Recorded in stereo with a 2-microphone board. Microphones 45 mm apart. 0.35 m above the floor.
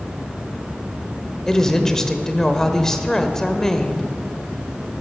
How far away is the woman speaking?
About 1.1 m.